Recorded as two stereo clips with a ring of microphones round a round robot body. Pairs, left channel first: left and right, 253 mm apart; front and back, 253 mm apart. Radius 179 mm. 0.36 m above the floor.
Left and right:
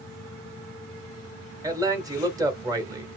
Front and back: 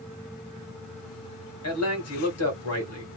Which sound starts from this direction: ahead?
A man speaking, at 1.6 s.